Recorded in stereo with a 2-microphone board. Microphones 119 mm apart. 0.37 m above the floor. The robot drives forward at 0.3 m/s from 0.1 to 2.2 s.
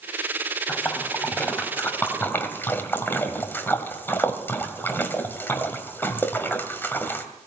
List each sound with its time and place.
0.7 s a splash: 15° left (ahead or behind), 2.5 m